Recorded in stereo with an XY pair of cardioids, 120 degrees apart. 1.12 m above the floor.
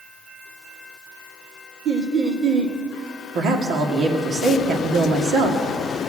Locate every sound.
1.9 s laughter: 55° right, 1.6 m
3.4 s a woman speaking: 70° right, 1.9 m